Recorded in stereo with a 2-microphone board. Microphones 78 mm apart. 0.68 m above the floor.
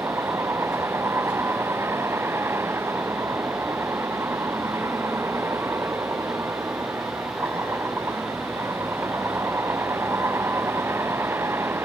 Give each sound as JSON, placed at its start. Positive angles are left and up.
{"t": 0.0, "sound": "a vehicle", "side_deg": -35}